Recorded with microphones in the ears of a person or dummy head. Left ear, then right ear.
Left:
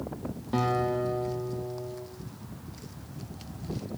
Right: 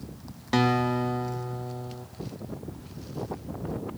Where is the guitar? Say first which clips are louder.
Right 3 dB; 65° right (ahead or behind), 1.1 m.